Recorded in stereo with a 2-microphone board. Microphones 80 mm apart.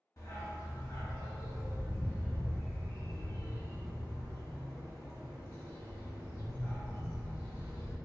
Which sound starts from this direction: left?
A dog barking, at 0.2 s.